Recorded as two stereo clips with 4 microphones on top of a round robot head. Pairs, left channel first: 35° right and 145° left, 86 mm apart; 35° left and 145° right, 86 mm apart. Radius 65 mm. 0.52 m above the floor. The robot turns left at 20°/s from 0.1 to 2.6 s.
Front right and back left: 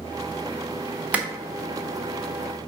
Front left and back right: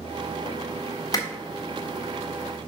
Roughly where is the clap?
Left.